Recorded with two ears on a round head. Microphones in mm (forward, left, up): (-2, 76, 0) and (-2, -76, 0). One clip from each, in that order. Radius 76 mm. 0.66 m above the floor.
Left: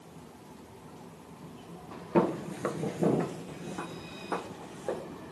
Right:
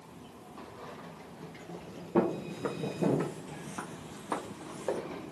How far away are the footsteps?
About 0.8 m.